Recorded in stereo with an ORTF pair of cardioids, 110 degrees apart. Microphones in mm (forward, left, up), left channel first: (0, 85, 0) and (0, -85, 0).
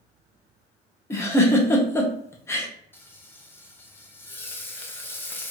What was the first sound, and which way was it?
A giggle, 15° left.